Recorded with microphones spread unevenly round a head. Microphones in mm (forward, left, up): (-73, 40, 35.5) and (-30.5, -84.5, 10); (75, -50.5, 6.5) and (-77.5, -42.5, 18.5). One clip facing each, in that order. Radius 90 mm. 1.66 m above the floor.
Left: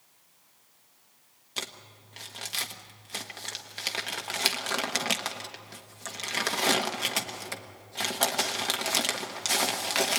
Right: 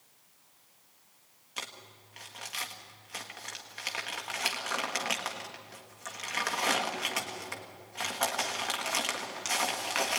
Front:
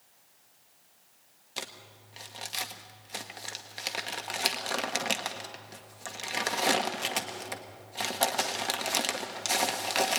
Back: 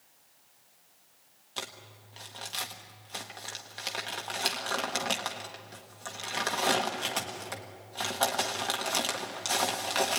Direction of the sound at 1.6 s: 75° left.